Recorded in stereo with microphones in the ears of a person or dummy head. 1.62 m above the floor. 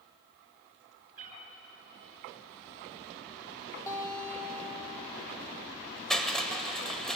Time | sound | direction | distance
1.2 | a cat meowing | 45° right (ahead or behind) | 4 m
3.9 | a guitar | 20° left (ahead or behind) | 3.5 m
6.1 | crushing | 5° left (ahead or behind) | 2.0 m